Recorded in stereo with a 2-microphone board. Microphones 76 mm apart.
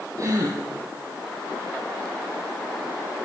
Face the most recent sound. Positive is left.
turn(degrees=-45)  # may be behind; listen again after turning